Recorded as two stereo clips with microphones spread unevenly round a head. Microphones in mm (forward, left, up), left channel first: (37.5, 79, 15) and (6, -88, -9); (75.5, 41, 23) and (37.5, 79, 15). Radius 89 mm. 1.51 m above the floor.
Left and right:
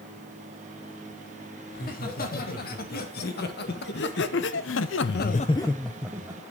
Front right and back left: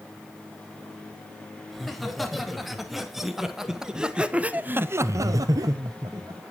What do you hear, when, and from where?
1.7 s laughter: 45° left, 3.5 m; by 6.4 s 175° right, 1.2 m